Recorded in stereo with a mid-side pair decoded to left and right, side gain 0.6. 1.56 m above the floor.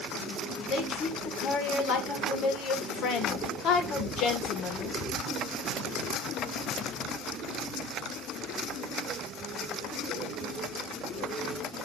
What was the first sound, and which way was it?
A woman speaking, 60° left.